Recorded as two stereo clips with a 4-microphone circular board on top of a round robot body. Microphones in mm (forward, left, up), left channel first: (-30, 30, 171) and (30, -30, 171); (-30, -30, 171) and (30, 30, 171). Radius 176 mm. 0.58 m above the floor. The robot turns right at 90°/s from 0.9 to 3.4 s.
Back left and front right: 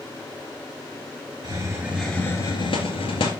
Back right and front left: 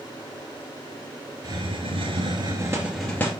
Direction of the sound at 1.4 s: 5° right.